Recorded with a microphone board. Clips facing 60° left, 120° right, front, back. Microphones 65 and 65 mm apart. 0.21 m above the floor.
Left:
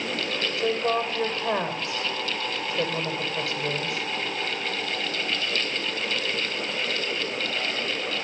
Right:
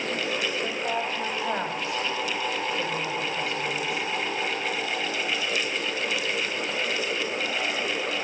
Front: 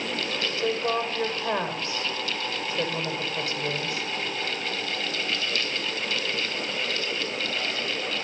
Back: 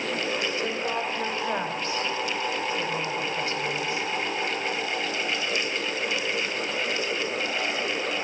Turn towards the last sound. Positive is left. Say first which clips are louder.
# left 4 dB, front 2 dB
turn(degrees=45)